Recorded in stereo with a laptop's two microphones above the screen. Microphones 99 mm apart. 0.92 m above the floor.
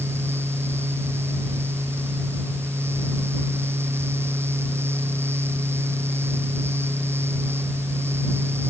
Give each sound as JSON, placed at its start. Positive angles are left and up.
{"t": 0.0, "sound": "a fan", "side_deg": -25}